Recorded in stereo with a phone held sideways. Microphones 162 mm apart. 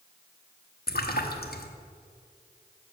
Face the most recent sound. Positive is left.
turn(degrees=70)  # may be behind; listen again after turning